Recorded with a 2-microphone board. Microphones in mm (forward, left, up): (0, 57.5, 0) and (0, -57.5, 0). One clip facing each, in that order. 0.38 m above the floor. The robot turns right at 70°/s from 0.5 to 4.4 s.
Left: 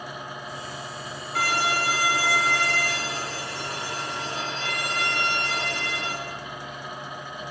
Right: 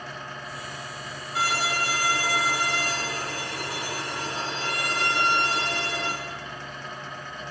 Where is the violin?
105° left, 1.3 m; by 6.1 s 40° right, 1.3 m.